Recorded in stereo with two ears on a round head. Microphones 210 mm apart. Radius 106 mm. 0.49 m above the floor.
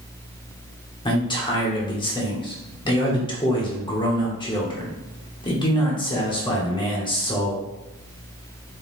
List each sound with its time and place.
1.1 s a man speaking: 20° left (ahead or behind), 1.1 m